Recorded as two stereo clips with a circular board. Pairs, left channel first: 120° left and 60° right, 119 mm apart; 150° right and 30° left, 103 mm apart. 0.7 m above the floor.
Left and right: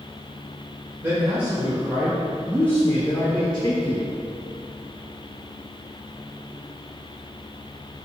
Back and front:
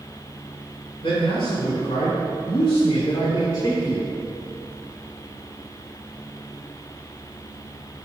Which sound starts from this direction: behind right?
A man speaking, at 1.0 s.